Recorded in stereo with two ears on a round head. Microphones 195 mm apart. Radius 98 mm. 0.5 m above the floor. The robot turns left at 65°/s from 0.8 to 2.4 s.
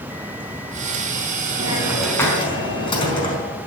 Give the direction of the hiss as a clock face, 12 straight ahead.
5 o'clock.